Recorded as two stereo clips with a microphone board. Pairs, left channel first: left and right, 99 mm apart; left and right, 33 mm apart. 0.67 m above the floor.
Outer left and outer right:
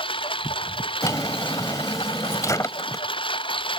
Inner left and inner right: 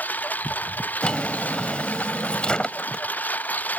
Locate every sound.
0.0 s a lawn mower: 65° left (ahead or behind)
1.0 s a drawer: 35° left (ahead or behind)